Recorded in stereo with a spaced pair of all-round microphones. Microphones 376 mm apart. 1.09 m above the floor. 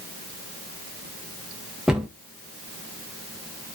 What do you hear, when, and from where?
1.9 s a cupboard door: centre (ahead or behind), 0.6 m